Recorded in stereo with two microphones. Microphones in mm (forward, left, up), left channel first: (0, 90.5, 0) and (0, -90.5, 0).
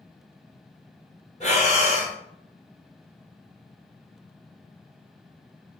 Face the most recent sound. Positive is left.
turn(degrees=40)  # may be behind; listen again after turning